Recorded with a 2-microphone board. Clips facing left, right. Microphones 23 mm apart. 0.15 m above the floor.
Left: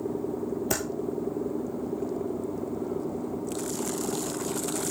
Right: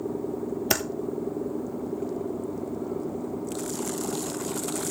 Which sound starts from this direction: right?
Typing on a keyboard, at 0.7 s.